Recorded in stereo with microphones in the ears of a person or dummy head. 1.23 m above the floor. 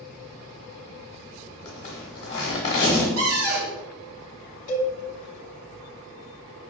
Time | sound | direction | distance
1.6 | a zipper | 25° left (ahead or behind) | 1.1 m
3.2 | a cupboard door | 85° right | 2 m
4.7 | a cowbell | 75° left (ahead or behind) | 0.8 m